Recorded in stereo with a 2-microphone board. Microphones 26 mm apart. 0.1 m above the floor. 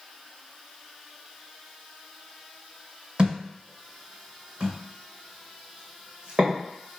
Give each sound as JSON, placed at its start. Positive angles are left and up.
{"t": 3.2, "sound": "a thud", "side_deg": -45, "distance_m": 1.2}